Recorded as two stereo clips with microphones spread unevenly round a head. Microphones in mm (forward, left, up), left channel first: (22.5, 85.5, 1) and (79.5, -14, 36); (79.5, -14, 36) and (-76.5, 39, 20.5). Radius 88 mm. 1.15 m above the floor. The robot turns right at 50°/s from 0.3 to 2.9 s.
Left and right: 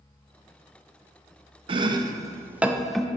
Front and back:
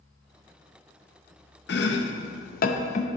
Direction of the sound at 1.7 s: 40° right.